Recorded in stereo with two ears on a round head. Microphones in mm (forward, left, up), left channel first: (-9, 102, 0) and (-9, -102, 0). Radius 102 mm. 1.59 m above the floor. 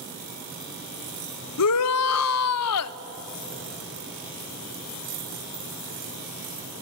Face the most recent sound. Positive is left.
turn(degrees=70)  # may be behind; listen again after turning